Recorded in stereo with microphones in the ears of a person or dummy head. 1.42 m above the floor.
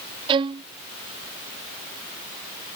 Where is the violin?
25° right (ahead or behind).